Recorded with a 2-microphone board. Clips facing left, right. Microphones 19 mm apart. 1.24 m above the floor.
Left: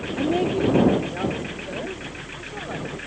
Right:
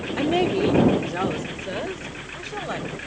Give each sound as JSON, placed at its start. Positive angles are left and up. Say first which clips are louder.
{"t": 0.2, "sound": "a woman speaking", "louder": "right 1 dB", "side_deg": -50}